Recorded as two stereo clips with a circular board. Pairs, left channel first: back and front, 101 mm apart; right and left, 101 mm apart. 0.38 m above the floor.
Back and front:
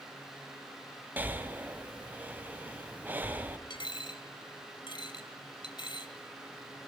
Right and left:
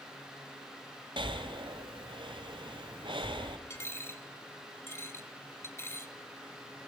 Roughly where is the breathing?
Left.